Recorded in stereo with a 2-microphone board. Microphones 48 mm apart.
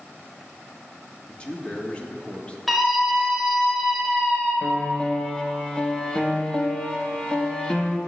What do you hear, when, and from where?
1.3 s a man speaking: 25° left (ahead or behind), 1.1 m
2.7 s a scream: 5° left (ahead or behind), 2.5 m
4.6 s a piano: 20° left (ahead or behind), 0.9 m